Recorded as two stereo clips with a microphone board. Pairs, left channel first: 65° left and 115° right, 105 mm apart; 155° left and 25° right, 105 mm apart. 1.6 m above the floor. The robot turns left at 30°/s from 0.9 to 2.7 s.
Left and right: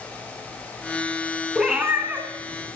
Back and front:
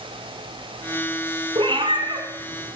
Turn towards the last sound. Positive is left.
turn(degrees=-60)